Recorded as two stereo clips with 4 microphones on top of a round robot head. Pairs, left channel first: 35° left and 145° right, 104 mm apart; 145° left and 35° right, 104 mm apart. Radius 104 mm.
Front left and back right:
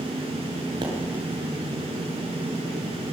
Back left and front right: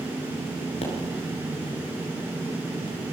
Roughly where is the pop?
Behind.